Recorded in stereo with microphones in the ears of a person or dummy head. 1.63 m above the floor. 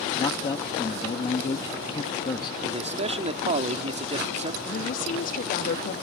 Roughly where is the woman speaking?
Left.